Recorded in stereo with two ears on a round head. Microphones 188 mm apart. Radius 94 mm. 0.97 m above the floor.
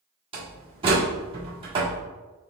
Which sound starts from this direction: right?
A door slam, at 0.3 s.